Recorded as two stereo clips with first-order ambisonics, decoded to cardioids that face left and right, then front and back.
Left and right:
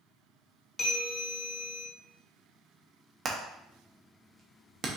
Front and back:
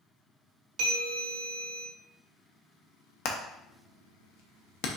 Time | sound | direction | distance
0.8 | a bell | 150° left | 1.3 m
3.2 | hammering | 25° right | 0.7 m